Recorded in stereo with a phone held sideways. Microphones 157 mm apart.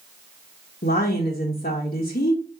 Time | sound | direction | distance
0.8 | a woman speaking | 70° left (ahead or behind) | 0.7 m